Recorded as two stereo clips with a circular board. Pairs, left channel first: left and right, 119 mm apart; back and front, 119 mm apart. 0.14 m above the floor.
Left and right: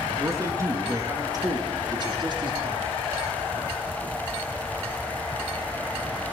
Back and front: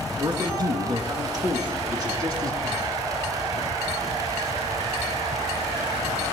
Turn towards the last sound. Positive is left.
turn(degrees=-55)